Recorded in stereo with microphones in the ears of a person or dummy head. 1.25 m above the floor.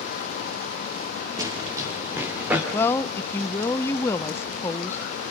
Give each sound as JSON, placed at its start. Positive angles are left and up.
{"t": 1.4, "sound": "running footsteps", "side_deg": -20, "distance_m": 5.5}
{"t": 2.7, "sound": "a woman speaking", "side_deg": 15, "distance_m": 0.6}